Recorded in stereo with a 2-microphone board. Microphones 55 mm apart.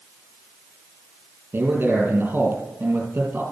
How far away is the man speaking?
About 3.5 m.